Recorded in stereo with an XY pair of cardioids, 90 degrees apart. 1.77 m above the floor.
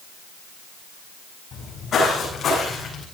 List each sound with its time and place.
1.5 s footsteps: 70° left, 8 m; by 3.0 s 75° left, 8.5 m